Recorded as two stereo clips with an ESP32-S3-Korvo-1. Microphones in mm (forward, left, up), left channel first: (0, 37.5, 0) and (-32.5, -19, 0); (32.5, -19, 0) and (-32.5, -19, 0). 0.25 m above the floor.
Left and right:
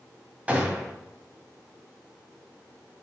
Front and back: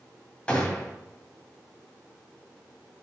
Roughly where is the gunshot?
Ahead right.